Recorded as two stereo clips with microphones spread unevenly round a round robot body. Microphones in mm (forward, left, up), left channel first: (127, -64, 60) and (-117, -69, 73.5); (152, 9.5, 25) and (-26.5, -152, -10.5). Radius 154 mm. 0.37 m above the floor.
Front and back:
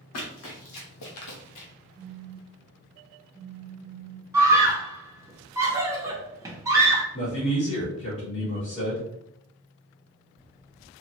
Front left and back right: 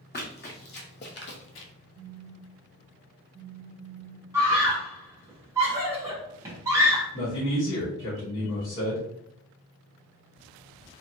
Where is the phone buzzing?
40° right, 1.6 m.